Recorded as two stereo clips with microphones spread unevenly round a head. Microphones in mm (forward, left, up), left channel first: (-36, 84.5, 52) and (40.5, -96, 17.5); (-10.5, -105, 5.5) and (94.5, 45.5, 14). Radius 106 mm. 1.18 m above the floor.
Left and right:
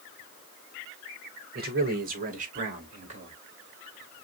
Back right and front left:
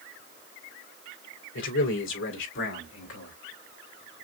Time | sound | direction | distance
1.6 | a man speaking | 110° right | 3.5 m